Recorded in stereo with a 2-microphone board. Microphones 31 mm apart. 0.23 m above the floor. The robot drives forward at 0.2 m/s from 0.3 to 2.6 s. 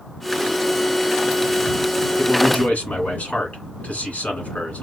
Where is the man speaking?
60° left (ahead or behind), 2 m.